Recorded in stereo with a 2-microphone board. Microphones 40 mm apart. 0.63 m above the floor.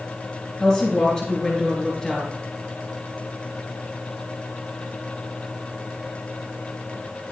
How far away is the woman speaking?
About 4.5 m.